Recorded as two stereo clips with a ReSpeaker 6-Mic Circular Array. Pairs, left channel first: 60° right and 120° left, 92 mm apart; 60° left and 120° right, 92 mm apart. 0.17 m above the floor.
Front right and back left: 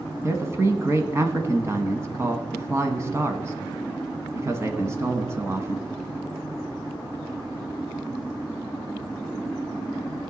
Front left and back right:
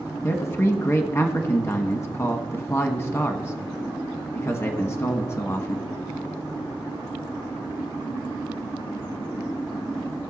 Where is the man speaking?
90° left, 1.2 m.